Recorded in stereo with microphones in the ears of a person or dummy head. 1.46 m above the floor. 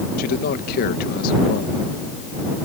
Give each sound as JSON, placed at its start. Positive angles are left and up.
{"t": 0.2, "sound": "a man speaking", "side_deg": 60}